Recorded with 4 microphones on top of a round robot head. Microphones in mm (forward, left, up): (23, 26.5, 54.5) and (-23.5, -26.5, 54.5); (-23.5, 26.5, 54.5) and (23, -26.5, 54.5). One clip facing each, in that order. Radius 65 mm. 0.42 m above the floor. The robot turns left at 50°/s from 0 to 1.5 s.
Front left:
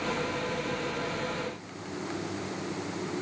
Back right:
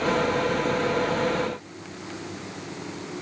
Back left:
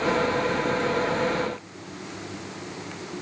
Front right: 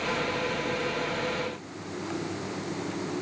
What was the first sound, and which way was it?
Only background noise.